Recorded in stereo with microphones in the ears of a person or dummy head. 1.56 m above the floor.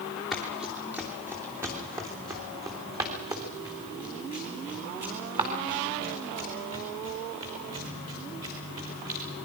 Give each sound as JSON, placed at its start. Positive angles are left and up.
{"t": 0.3, "sound": "running footsteps", "side_deg": 0, "distance_m": 2.5}